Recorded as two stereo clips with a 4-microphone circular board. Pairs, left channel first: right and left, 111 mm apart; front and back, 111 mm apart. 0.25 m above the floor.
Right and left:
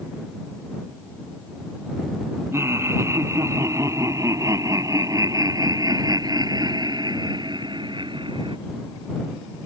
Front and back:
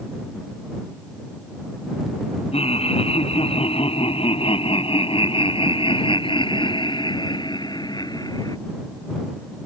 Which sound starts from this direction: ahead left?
Laughter, at 2.5 s.